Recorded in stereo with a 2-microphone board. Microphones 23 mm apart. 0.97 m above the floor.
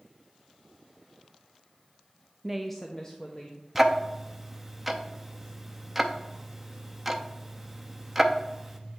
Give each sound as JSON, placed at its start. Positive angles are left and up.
{"t": 2.4, "sound": "a woman speaking", "side_deg": -15, "distance_m": 0.5}
{"t": 3.8, "sound": "ticking", "side_deg": -10, "distance_m": 0.6}